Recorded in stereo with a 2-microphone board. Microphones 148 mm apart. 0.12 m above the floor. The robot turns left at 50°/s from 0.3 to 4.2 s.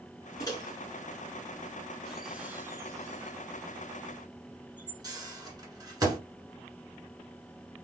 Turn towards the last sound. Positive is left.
turn(degrees=-25)  # may be behind; listen again after turning